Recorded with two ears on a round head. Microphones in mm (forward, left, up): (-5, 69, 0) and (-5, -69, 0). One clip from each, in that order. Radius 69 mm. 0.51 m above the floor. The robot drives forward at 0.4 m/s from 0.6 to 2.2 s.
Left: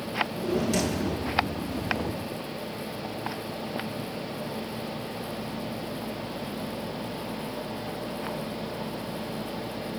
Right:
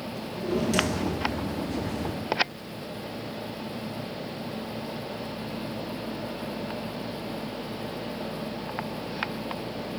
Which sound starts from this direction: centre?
A drawer, at 0.1 s.